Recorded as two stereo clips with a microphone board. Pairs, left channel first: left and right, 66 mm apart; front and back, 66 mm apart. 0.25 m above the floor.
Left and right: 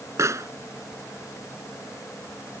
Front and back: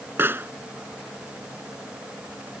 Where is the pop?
125° right.